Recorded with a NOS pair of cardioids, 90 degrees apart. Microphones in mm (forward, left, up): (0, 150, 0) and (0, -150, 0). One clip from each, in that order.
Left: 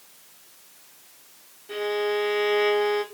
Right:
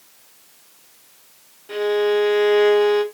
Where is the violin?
25° right, 0.6 m.